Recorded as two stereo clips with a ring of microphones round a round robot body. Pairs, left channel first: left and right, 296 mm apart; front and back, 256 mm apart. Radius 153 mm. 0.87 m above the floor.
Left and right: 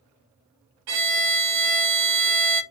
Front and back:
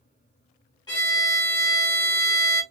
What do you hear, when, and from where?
0.9 s a violin: 80° right, 0.8 m